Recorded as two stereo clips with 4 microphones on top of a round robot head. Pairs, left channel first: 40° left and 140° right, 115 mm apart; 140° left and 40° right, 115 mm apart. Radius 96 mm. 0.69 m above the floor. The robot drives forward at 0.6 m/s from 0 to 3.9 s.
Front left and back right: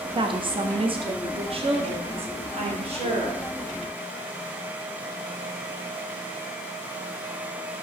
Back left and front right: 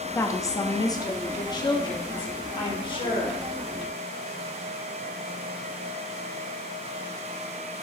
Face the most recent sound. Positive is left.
turn(degrees=-175)